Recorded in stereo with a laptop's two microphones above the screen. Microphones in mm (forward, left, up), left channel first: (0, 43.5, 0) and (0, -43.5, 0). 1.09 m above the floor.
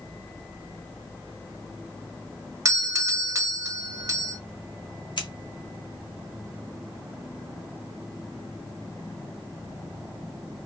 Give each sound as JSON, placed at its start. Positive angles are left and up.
{"t": 2.6, "sound": "a doorbell", "side_deg": -40, "distance_m": 0.7}
{"t": 5.2, "sound": "scissors", "side_deg": 65, "distance_m": 1.7}